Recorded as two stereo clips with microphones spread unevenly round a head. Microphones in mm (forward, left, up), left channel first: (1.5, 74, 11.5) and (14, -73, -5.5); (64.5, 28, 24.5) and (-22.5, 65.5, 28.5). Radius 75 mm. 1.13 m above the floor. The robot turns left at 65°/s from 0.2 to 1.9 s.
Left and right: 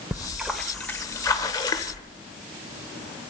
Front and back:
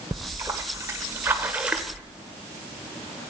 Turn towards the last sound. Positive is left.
turn(degrees=80)